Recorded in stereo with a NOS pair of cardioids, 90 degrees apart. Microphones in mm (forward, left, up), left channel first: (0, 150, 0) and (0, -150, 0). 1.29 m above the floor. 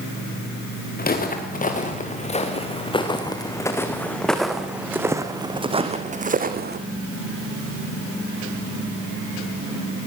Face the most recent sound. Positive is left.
turn(degrees=-35)